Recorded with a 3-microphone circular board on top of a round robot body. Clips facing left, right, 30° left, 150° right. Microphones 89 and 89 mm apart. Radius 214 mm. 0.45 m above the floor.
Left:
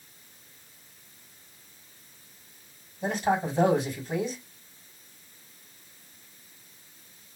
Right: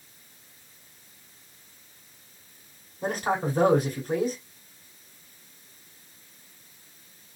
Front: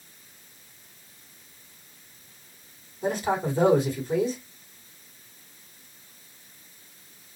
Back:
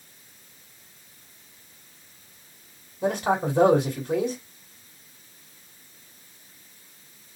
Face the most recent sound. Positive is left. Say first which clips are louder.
# left 1 dB, back 2 dB
turn(degrees=-130)